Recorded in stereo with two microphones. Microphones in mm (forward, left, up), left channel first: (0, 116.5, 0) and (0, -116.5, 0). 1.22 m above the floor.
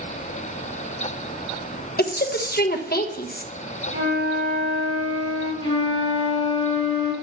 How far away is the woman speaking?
About 1.1 m.